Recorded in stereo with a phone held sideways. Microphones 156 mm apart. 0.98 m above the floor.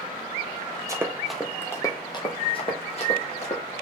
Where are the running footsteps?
20° right (ahead or behind), 1.0 m; by 3.6 s 45° left (ahead or behind), 2.5 m.